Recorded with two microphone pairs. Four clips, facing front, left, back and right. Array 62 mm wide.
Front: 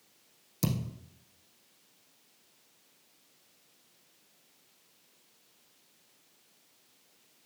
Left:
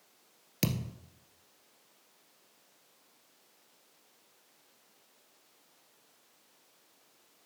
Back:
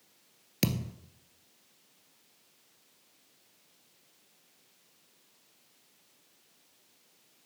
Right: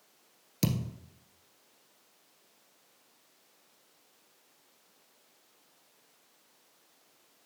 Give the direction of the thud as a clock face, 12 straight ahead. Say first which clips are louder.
Right 2 dB, back 1 dB; 7 o'clock.